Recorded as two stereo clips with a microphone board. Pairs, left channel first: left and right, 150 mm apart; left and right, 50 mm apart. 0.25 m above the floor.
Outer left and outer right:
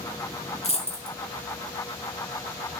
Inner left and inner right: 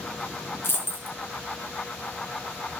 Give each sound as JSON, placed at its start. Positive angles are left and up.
{"t": 0.6, "sound": "a dropped coin", "side_deg": 45, "distance_m": 1.7}